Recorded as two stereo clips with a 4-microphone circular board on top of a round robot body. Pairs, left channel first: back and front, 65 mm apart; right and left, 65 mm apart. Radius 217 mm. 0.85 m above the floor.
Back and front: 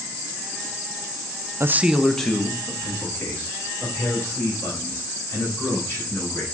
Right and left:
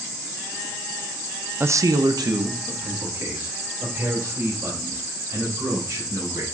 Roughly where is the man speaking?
Ahead left.